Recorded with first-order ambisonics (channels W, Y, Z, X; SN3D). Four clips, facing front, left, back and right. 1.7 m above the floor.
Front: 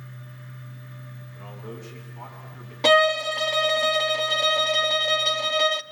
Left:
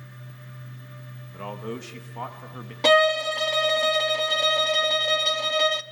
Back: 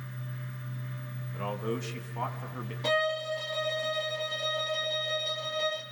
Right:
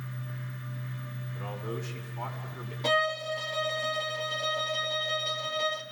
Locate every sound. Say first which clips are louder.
1.3 s a man speaking: left 4 dB, back 7 dB; 130° left, 2 m
2.8 s a violin: left 9 dB, front 10 dB; 40° left, 0.7 m